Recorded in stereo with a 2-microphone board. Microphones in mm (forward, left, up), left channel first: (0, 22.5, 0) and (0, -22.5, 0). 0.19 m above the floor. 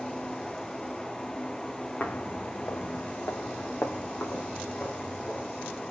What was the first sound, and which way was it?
Footsteps, 40° left (ahead or behind).